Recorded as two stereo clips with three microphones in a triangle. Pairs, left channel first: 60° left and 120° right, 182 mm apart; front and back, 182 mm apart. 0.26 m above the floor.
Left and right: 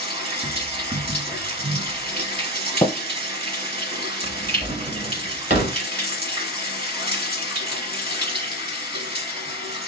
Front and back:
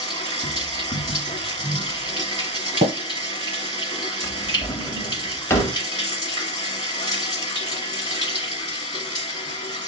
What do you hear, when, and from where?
0.0 s running water: 65° right, 1.5 m
2.8 s tapping: 140° left, 1.0 m
4.2 s a drawer: 75° right, 1.2 m